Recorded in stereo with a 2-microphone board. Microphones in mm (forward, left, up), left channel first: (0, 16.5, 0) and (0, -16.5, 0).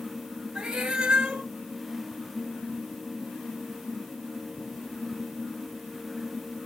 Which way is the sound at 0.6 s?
20° right (ahead or behind).